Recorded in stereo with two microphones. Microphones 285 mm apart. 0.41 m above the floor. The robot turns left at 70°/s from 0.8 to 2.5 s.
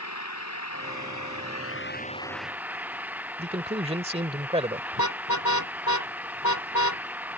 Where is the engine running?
115° left; by 7.4 s 5° right.